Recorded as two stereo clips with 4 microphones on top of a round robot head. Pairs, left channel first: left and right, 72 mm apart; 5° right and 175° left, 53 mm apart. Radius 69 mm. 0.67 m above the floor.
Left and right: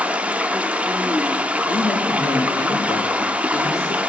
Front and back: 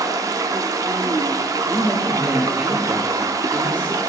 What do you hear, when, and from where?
0.0 s running water: 160° right, 0.7 m
1.7 s a man speaking: 120° left, 2.5 m